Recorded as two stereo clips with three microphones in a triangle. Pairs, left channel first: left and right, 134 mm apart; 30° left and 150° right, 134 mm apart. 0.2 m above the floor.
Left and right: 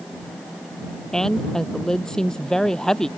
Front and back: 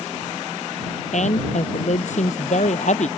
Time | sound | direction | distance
1.1 | a woman speaking | 5° left | ?